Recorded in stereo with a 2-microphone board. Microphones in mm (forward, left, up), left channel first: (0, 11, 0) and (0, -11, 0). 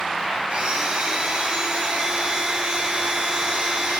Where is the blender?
55° right (ahead or behind), 1.7 m.